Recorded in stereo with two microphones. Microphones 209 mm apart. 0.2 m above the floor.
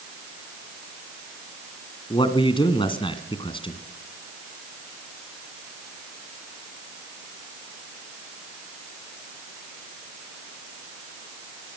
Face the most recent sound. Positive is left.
turn(degrees=25)  # may be behind; listen again after turning